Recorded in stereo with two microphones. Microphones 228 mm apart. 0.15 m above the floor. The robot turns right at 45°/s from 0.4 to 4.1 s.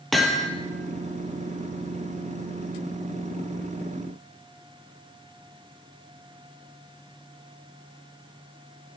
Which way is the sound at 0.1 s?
Centre (ahead or behind).